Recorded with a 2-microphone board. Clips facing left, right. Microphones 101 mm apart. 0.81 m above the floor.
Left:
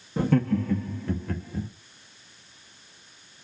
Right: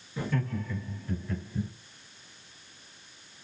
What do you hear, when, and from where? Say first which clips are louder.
0.2 s laughter: left 9 dB; 45° left (ahead or behind), 1.2 m; by 1.7 s 60° left (ahead or behind), 2.5 m